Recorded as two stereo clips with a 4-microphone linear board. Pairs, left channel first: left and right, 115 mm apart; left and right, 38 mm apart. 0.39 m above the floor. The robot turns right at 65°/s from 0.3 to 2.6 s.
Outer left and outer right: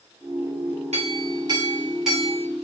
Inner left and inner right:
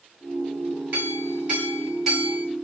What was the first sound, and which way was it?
A clink, 80° right.